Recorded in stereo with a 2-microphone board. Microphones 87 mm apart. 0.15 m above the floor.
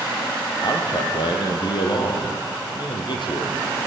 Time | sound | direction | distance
0.6 | a man speaking | 60° left (ahead or behind) | 5 m